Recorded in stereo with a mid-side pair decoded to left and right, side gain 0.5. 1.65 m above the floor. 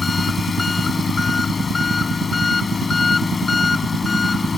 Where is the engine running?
30° left.